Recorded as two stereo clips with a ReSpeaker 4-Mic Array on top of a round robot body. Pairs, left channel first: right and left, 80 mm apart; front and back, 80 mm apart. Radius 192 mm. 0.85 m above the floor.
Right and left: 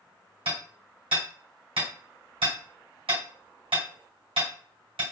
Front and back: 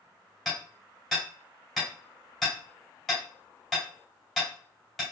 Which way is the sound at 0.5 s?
90° left.